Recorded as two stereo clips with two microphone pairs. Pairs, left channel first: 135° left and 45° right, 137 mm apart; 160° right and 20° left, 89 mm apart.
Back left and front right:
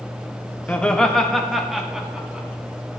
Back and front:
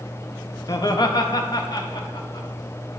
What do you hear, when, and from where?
0.7 s laughter: 145° right, 0.7 m; by 2.5 s 125° right, 1.6 m